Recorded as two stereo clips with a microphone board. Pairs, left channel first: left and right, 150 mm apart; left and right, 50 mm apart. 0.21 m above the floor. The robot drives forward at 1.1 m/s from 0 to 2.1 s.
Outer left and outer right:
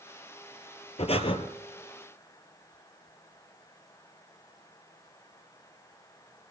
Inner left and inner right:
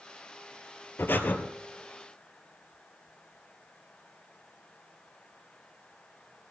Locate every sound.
1.0 s breathing: 50° left (ahead or behind), 1.5 m; by 1.4 s 40° left (ahead or behind), 1.8 m